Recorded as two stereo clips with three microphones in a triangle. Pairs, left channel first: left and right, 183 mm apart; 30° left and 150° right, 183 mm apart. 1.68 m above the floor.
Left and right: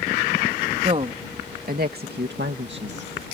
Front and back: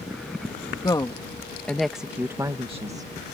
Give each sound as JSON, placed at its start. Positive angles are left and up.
{"t": 0.8, "sound": "a woman speaking", "azimuth_deg": -35}